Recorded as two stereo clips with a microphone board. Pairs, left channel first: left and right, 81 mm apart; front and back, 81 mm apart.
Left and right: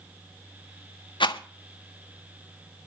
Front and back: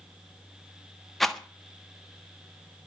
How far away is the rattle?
About 1.2 m.